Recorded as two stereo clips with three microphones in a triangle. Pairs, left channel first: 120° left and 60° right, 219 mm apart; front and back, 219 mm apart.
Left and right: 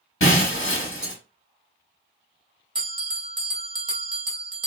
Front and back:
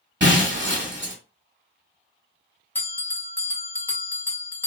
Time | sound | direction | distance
0.2 | breaking glass | 145° left | 1.2 m
2.8 | a bell | 65° right | 0.6 m